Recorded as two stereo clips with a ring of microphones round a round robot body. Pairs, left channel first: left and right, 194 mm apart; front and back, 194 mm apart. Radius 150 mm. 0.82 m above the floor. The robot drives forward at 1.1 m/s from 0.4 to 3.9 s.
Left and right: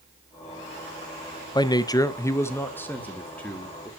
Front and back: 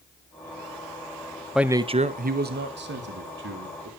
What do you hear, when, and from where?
1.6 s a man speaking: 95° left, 0.8 m; by 3.9 s 175° left, 2.5 m